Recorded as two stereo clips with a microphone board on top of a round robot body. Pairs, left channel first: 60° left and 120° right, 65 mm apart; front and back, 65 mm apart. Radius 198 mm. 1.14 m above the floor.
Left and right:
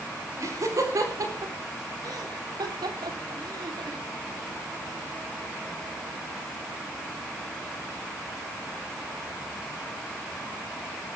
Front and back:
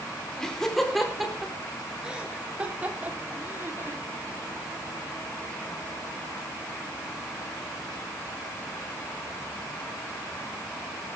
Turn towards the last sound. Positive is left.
turn(degrees=-130)